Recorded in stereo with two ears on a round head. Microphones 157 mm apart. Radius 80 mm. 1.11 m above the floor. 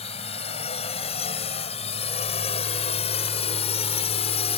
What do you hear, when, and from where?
0.0 s a drone: 35° left (ahead or behind)